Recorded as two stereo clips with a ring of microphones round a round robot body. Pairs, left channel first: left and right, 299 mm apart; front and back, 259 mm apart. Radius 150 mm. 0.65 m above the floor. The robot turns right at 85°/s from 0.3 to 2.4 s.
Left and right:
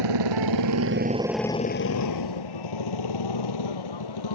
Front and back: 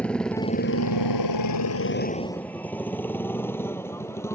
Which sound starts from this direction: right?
A motorcycle, at 0.0 s.